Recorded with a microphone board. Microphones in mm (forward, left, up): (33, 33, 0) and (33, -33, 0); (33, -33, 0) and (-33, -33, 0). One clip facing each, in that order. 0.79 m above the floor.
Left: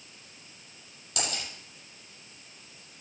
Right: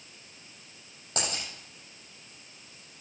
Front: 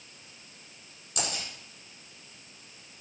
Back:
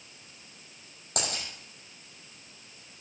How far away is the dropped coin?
About 7 m.